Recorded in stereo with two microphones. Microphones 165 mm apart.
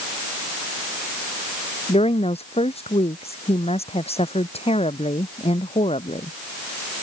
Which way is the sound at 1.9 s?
40° left (ahead or behind).